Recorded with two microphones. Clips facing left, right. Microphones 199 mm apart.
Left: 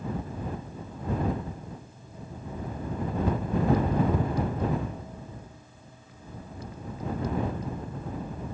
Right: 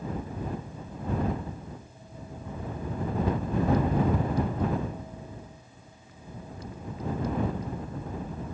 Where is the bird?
No bird in this recording.